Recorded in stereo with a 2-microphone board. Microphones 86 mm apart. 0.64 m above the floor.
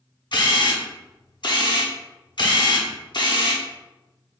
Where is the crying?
No crying in this recording.